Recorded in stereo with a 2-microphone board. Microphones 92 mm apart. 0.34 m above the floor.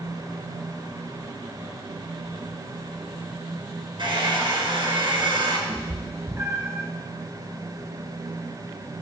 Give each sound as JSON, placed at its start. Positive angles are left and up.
{"t": 4.0, "sound": "a hair dryer", "side_deg": -60, "distance_m": 1.9}
{"t": 5.7, "sound": "a cat meowing", "side_deg": -30, "distance_m": 1.1}